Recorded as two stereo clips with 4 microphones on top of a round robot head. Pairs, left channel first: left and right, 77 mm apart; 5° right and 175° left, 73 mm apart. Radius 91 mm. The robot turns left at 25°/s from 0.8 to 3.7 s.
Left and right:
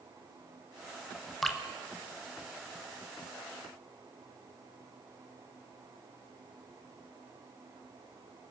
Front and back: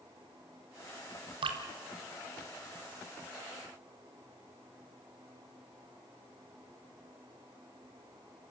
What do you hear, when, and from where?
1.4 s dripping: straight behind, 1.4 m; by 1.6 s 175° left, 1.4 m